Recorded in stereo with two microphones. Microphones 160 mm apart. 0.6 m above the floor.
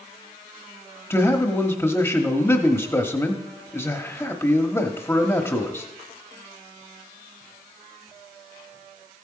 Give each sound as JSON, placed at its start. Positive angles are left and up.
{"t": 1.1, "sound": "a man speaking", "side_deg": 15, "distance_m": 0.9}